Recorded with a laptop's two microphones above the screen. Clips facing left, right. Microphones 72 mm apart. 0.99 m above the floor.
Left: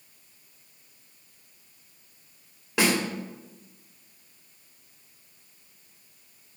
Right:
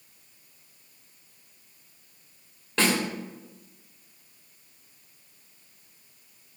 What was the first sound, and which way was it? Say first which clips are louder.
A snare drum: left 1 dB; 10° left (ahead or behind).